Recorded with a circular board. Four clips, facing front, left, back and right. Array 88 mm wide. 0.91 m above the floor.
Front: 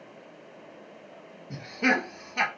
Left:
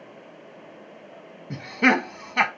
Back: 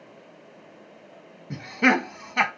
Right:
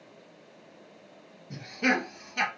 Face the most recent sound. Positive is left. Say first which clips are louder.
# left 7 dB, back 5 dB
turn(degrees=120)